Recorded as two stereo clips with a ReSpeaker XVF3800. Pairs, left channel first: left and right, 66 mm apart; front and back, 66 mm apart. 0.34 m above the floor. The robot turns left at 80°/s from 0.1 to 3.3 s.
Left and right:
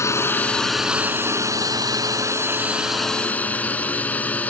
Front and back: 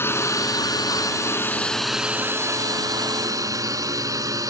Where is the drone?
50° left; by 4.5 s 155° left.